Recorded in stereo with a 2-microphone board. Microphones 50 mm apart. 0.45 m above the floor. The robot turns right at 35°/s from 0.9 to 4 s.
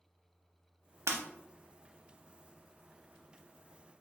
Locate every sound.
1.1 s breaking glass: 65° right (ahead or behind), 0.7 m; by 1.2 s 70° right (ahead or behind), 0.7 m